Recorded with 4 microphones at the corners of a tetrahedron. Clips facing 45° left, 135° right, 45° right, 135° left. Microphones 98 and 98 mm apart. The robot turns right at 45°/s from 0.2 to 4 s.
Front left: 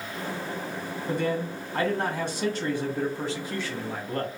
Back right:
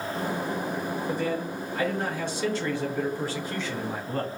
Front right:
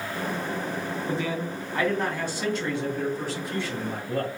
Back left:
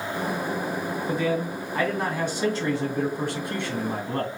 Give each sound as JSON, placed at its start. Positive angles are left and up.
{"t": 1.1, "sound": "a man speaking", "azimuth_deg": 15, "distance_m": 2.0}